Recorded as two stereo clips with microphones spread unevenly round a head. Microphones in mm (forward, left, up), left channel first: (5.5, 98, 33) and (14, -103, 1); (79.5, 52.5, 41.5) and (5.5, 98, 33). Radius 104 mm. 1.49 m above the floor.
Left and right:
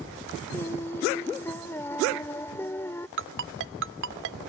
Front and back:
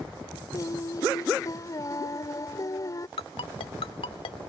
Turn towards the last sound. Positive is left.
turn(degrees=-55)